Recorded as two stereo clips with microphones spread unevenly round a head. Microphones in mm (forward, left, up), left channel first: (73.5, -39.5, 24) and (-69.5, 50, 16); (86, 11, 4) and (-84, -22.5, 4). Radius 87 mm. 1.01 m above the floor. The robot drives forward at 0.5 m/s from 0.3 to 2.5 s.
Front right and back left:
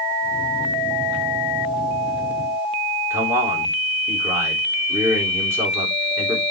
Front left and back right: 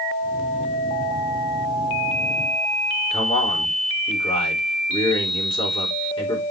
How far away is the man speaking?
About 3 m.